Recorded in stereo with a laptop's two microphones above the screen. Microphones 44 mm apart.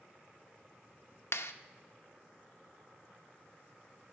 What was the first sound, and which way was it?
A clap, 65° left (ahead or behind).